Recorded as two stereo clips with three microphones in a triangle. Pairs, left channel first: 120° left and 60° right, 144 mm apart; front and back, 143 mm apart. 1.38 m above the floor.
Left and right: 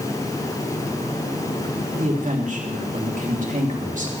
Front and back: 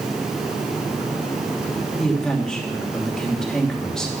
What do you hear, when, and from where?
2.0 s a woman speaking: 85° right, 3 m